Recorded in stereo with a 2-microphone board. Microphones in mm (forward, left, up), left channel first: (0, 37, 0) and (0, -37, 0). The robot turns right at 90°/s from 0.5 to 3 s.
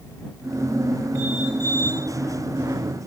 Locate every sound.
Only background noise.